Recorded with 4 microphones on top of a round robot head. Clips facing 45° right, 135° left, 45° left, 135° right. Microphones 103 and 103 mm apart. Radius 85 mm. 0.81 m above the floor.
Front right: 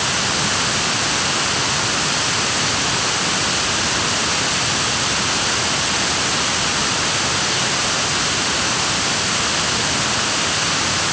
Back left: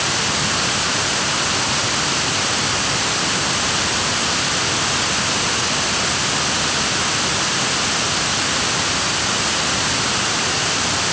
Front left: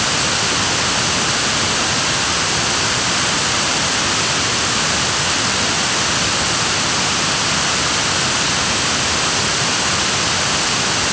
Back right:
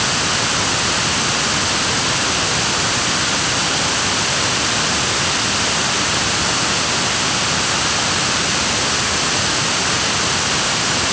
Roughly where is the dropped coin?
I don't hear a dropped coin.